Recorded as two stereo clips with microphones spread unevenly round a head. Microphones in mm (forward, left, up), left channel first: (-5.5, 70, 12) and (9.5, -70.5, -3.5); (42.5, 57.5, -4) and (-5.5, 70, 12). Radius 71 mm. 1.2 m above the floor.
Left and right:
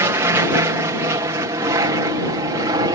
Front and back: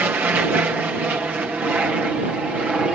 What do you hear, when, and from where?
0.0 s an aircraft: 140° right; by 3.0 s 120° right